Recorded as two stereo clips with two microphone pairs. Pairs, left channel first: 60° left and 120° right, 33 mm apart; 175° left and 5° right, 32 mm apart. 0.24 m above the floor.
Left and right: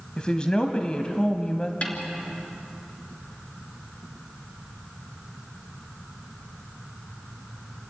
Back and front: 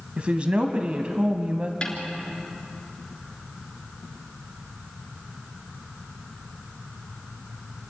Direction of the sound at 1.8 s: 110° left.